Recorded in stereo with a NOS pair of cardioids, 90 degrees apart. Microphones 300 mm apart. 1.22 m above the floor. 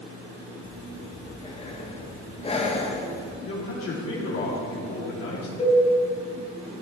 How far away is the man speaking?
About 3.5 m.